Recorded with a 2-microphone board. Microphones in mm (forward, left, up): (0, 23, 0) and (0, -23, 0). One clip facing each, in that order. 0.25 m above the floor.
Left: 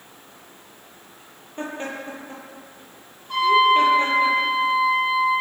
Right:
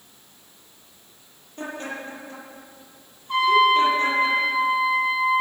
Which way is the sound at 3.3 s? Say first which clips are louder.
Left 1 dB; 15° right (ahead or behind).